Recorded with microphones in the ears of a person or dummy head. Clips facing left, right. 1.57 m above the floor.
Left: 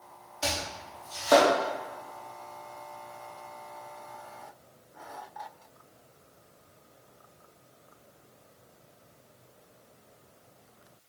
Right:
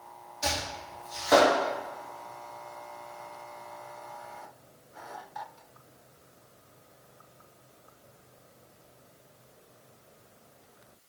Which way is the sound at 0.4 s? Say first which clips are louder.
Even; 45° left (ahead or behind).